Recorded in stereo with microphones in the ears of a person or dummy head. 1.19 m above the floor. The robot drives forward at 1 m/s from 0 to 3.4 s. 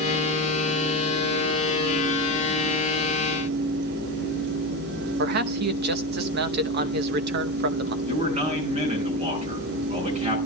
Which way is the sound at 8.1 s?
40° right (ahead or behind).